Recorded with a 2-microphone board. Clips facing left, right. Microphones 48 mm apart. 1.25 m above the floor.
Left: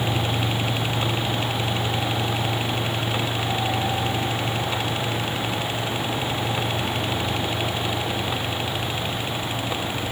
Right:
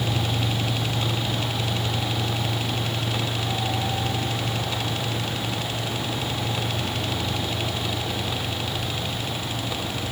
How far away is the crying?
No crying in this recording.